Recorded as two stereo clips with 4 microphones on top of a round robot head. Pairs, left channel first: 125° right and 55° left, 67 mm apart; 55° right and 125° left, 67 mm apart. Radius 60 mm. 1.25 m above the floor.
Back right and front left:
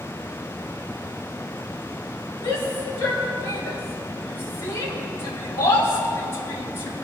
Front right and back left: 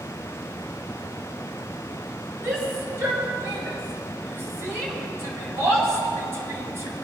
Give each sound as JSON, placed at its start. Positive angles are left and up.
{"t": 2.4, "sound": "a shout", "azimuth_deg": 180, "distance_m": 6.5}